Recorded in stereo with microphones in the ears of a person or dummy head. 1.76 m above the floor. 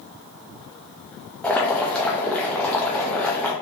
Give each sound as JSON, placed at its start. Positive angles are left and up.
{"t": 1.4, "sound": "boiling", "side_deg": 0, "distance_m": 0.6}